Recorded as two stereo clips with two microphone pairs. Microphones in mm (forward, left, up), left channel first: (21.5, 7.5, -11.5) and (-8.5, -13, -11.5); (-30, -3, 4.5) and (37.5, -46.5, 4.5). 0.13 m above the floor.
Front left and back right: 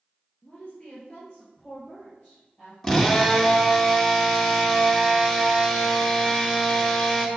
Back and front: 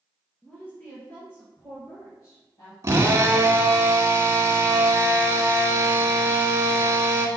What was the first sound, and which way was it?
A woman speaking, 75° left.